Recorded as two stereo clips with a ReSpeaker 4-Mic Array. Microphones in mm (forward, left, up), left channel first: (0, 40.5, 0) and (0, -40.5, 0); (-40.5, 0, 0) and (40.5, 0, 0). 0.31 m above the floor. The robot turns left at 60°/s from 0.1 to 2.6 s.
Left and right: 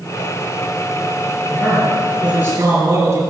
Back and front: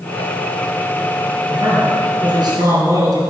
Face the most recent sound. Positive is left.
turn(degrees=-35)